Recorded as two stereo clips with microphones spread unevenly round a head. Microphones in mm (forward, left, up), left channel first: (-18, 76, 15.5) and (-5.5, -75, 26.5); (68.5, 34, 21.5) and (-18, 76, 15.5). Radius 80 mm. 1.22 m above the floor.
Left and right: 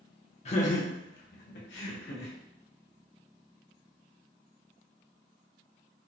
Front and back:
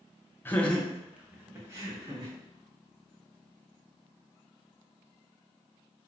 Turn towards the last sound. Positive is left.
turn(degrees=105)